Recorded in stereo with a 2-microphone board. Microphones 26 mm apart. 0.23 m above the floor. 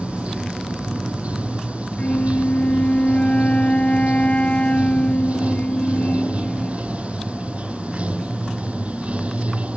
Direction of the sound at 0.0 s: 60° right (ahead or behind).